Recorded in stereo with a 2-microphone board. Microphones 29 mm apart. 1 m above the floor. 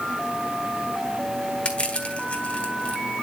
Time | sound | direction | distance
1.6 | crushing | 35° left (ahead or behind) | 2 m